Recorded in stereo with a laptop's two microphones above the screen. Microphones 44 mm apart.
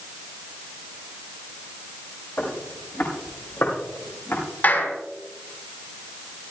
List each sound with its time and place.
2.4 s footsteps: 45° left (ahead or behind), 7 m; by 4.4 s 55° left (ahead or behind), 6 m
4.6 s a clap: 50° left (ahead or behind), 5.5 m